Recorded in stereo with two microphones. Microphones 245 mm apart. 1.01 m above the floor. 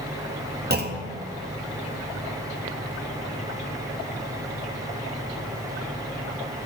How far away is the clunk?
About 0.6 m.